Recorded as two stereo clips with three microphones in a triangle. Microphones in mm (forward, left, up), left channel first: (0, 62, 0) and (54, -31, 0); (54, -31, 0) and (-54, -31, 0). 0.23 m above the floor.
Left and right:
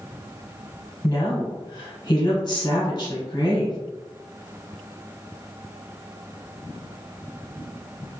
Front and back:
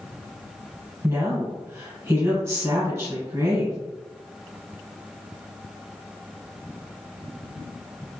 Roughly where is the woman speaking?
Behind left.